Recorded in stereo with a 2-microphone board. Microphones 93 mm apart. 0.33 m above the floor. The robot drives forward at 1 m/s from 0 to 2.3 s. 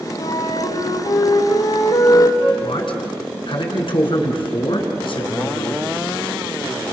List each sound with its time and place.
0.2 s a flute: 85° left, 5.5 m; by 2.5 s 65° left (ahead or behind), 6 m
2.6 s a man speaking: 60° left (ahead or behind), 4.5 m